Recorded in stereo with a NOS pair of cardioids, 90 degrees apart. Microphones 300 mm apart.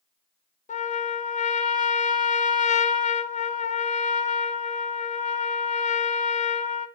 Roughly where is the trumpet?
Ahead left.